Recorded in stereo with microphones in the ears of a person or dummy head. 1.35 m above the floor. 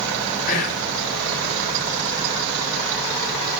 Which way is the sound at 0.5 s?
45° left (ahead or behind).